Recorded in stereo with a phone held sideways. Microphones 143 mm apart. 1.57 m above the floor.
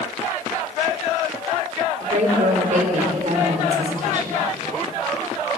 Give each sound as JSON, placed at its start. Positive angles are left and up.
{"t": 2.0, "sound": "a woman speaking", "side_deg": -60, "distance_m": 5.0}